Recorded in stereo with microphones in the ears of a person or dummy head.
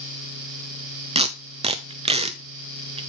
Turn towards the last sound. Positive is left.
turn(degrees=-25)  # may be behind; listen again after turning